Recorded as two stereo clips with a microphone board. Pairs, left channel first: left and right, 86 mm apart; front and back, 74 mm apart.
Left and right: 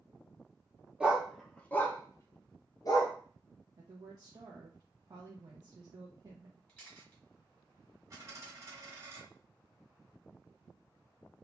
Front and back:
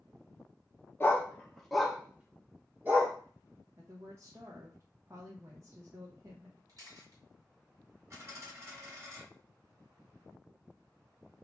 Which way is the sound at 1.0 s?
25° right.